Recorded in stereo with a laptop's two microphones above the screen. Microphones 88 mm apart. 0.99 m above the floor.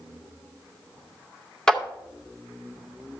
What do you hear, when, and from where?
1.7 s a clap: 10° left (ahead or behind), 0.6 m